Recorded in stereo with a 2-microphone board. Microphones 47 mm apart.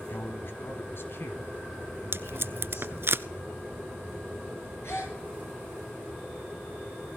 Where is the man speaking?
50° left (ahead or behind), 2.5 m; by 3.1 s 65° left (ahead or behind), 4.5 m.